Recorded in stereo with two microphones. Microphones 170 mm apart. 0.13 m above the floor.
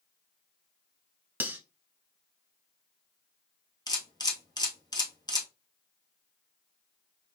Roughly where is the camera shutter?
Left.